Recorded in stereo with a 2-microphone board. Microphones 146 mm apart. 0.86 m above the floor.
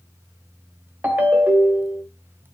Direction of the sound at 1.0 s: 10° right (ahead or behind).